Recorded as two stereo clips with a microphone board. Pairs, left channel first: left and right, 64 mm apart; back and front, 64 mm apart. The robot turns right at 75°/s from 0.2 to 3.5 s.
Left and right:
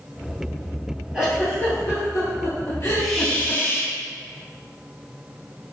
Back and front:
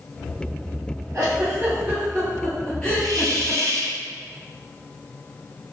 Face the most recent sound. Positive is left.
turn(degrees=30)